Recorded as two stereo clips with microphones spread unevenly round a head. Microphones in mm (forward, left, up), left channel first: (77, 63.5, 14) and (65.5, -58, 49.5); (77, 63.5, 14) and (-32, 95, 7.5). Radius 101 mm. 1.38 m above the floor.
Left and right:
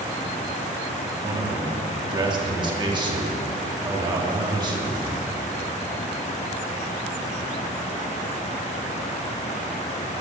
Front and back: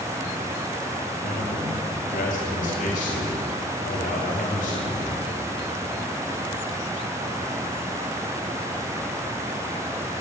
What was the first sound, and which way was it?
A man speaking, 40° right.